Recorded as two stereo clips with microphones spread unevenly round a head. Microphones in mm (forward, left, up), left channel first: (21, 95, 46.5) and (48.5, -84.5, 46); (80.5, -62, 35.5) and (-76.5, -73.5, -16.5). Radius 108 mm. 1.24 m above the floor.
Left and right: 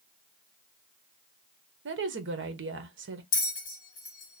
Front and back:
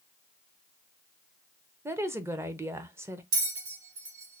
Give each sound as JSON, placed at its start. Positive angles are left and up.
{"t": 1.9, "sound": "a woman speaking", "azimuth_deg": -105, "distance_m": 0.8}
{"t": 3.3, "sound": "a bell", "azimuth_deg": 135, "distance_m": 0.9}